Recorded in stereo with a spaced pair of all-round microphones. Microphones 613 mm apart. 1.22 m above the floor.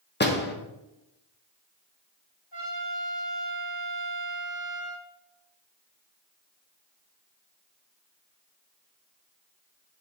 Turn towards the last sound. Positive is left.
turn(degrees=20)  # may be behind; listen again after turning